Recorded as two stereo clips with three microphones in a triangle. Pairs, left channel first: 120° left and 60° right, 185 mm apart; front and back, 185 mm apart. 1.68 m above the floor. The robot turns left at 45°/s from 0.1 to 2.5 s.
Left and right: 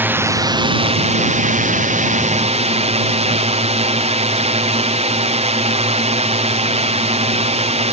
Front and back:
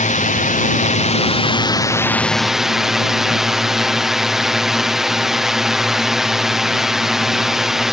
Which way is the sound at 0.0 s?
15° left.